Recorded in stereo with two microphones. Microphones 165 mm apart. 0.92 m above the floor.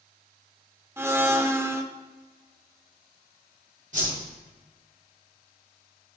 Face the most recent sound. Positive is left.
turn(degrees=-50)  # may be behind; listen again after turning